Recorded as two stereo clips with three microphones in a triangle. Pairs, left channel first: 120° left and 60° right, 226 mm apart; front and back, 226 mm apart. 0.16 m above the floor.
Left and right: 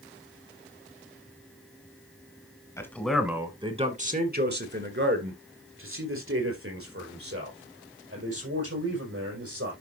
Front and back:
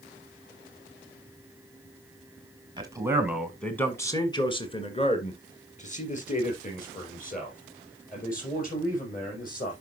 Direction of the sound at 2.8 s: 170° left.